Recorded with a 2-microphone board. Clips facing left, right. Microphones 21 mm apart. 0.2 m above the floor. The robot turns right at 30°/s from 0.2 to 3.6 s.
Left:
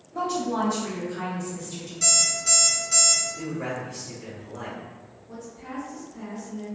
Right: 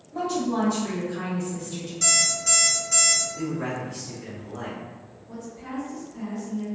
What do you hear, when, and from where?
0.1 s a woman speaking: 10° right (ahead or behind), 1.3 m; by 1.9 s 5° left (ahead or behind), 1.3 m
2.0 s an alarm clock: 10° right, 1.3 m; by 3.2 s 25° left, 1.3 m
3.4 s a man speaking: centre (ahead or behind), 1.2 m; by 4.8 s 5° left (ahead or behind), 1.2 m
5.3 s a woman speaking: 5° left (ahead or behind), 1.5 m